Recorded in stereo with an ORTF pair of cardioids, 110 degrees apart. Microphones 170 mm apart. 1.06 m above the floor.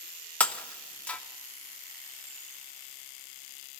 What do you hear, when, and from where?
0.4 s breaking glass: 10° left, 1.2 m